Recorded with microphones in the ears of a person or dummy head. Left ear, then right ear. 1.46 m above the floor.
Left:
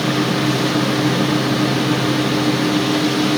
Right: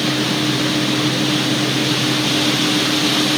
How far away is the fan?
About 1.1 m.